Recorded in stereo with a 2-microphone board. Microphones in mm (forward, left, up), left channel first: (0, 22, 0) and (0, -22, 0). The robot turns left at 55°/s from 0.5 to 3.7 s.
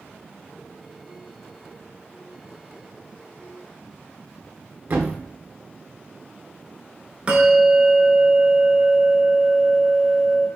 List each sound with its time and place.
4.9 s a thud: 55° right (ahead or behind), 1.0 m
7.3 s a bell: 30° right (ahead or behind), 0.9 m